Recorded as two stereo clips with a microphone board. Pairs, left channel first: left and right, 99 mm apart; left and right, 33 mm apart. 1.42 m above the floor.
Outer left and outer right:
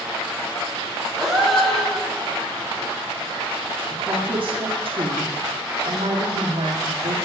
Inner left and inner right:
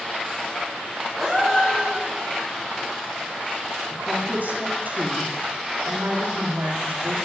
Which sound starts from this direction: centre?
A gasp, at 1.2 s.